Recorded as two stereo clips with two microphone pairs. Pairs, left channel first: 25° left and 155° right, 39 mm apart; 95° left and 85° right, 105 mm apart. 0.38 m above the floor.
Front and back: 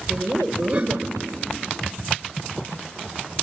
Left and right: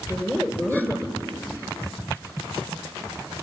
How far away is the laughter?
About 1.5 m.